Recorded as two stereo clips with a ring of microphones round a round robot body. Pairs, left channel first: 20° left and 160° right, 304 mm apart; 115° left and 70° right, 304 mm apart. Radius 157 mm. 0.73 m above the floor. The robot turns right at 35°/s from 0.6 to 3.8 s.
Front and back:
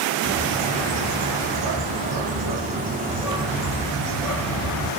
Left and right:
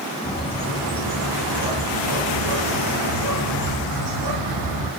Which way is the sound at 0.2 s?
175° right.